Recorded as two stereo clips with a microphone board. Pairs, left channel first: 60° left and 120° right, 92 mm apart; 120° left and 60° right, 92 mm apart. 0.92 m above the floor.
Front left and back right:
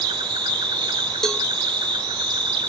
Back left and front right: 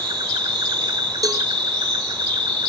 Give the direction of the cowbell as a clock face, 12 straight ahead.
1 o'clock.